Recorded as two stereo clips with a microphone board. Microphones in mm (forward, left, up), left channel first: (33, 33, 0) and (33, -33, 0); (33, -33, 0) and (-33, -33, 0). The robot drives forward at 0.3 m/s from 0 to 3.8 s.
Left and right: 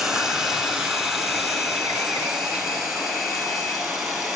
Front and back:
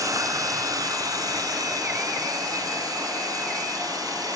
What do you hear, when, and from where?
0.0 s running water: 165° right, 1.5 m; by 4.4 s 175° right, 2.5 m